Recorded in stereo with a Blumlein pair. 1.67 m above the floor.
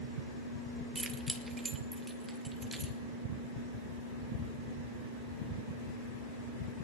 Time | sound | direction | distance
0.9 | keys jangling | 15° right | 1.9 m